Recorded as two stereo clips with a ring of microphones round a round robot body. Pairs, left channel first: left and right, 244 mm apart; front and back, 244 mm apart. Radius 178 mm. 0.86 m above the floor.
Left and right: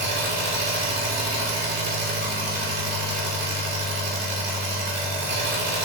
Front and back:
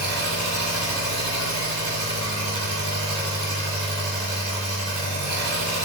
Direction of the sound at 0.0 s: 80° right.